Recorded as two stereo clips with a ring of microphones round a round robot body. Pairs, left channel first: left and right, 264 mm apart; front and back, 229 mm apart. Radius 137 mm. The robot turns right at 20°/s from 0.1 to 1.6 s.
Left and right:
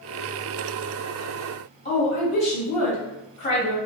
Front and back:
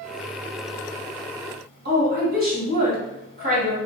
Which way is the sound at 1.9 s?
145° left.